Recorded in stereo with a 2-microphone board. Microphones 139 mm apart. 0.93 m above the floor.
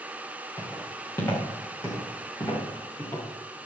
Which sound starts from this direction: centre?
Footsteps, at 0.6 s.